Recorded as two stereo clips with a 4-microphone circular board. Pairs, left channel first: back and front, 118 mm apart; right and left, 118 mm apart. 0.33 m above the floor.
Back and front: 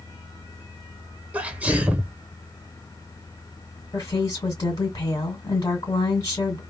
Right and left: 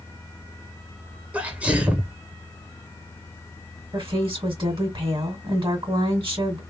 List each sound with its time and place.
1.3 s a sneeze: 40° left, 0.9 m
3.9 s a woman speaking: 135° left, 2 m